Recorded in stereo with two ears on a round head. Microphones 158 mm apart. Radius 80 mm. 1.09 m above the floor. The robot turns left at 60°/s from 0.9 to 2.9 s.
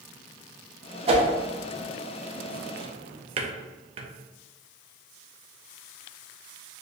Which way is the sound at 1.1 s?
35° right (ahead or behind).